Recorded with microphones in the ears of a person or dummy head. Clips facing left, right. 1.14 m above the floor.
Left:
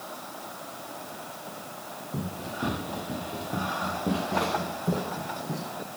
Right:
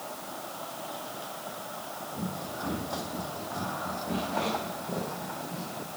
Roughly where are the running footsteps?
Left.